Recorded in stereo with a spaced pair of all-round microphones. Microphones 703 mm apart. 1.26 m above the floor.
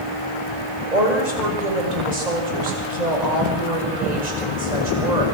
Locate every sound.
0.9 s a woman speaking: 85° right, 7 m